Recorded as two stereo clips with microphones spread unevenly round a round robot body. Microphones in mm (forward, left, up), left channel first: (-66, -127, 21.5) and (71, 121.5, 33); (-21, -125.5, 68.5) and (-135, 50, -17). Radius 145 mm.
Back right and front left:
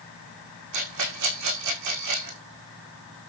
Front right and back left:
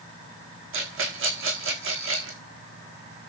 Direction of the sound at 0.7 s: 90° left.